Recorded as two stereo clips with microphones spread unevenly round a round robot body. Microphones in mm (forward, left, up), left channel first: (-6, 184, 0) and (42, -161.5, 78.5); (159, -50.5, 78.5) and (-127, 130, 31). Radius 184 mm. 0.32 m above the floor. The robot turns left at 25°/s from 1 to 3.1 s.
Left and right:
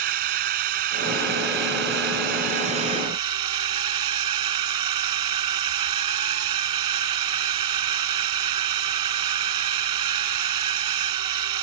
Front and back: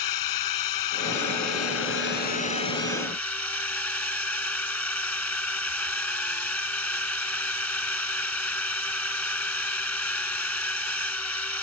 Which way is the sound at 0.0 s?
65° right.